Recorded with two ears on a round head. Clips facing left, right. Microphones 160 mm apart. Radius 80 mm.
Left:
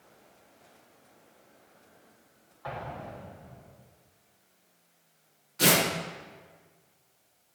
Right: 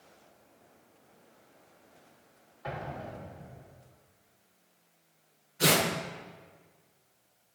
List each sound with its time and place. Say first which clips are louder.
2.6 s an explosion: even; 25° right (ahead or behind), 1.2 m
5.6 s tearing paper: left 1 dB; 85° left, 2.5 m